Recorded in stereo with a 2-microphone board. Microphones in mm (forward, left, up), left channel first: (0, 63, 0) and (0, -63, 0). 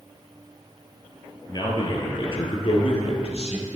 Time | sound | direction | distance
1.5 | a man speaking | 35° left (ahead or behind) | 2.5 m